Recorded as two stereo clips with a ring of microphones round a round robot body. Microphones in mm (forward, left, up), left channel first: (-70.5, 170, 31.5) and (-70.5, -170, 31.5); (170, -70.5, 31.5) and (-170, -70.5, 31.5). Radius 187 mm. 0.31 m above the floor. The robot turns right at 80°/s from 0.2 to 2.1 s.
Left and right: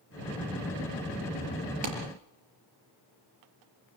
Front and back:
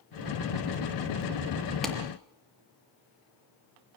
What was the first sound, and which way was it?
A clap, 90° right.